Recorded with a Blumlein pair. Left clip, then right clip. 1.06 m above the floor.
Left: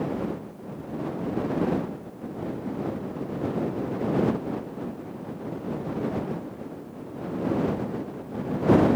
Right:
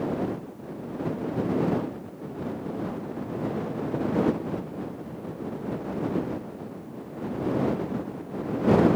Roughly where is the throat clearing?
No throat clearing in this recording.